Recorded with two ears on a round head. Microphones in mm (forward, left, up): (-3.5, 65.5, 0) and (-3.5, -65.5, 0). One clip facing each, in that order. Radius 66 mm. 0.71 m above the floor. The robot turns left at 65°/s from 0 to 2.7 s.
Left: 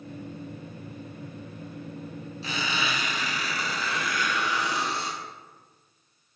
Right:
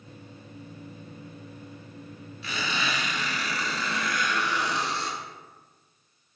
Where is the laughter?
I don't hear laughter.